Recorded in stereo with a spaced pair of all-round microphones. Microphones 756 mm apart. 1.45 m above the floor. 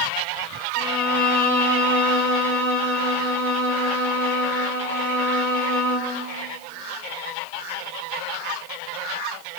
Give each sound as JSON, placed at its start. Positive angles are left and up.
{"t": 0.7, "sound": "a violin", "side_deg": 60, "distance_m": 4.5}